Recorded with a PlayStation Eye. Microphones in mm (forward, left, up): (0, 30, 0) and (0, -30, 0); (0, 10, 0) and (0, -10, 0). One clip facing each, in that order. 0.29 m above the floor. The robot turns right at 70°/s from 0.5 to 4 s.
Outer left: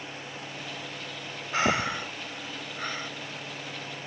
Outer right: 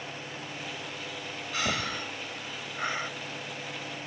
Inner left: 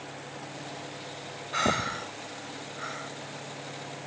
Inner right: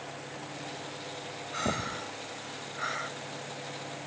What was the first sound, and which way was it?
Breathing, 30° left (ahead or behind).